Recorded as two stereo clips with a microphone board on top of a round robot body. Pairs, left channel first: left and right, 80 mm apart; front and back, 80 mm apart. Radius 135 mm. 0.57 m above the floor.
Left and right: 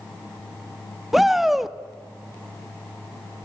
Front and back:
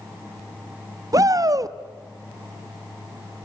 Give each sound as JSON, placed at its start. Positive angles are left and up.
{"t": 1.1, "sound": "a shout", "azimuth_deg": -175, "distance_m": 1.3}